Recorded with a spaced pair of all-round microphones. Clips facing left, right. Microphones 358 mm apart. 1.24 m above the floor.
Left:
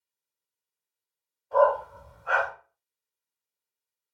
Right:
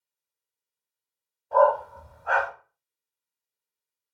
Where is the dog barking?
60° right (ahead or behind), 1.6 m.